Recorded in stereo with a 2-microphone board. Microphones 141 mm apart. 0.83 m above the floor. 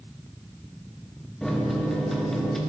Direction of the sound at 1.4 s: 5° left (ahead or behind).